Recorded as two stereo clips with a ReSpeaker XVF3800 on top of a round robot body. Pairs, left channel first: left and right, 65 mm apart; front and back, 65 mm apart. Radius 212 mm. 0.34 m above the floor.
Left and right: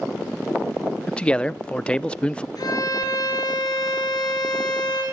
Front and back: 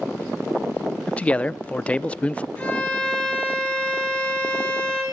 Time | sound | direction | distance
1.1 | a man speaking | 40° left | 0.9 m
2.6 | a violin | 70° left | 8 m